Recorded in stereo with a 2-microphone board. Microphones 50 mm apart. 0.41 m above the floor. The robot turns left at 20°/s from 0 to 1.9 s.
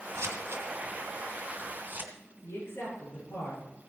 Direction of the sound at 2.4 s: 55° left (ahead or behind).